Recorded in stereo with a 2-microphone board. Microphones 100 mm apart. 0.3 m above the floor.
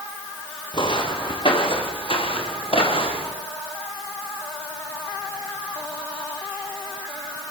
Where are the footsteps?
55° left (ahead or behind), 6.5 m; by 3.4 s 70° left (ahead or behind), 8.5 m.